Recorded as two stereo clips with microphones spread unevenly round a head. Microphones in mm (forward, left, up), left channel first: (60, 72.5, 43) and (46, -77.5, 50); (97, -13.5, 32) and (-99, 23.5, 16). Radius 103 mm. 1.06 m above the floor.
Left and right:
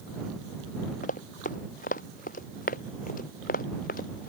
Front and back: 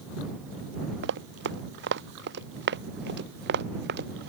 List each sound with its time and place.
1.0 s running footsteps: 135° left; by 4.3 s 130° left